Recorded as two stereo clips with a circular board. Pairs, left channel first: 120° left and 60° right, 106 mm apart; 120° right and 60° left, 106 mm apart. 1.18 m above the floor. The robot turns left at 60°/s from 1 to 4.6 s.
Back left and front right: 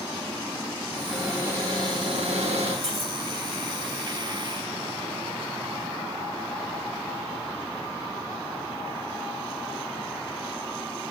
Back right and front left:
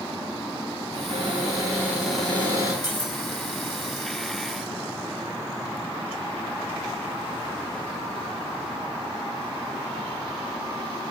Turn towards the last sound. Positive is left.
turn(degrees=-175)